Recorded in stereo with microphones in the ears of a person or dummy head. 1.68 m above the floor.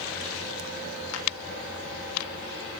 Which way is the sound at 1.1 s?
85° left.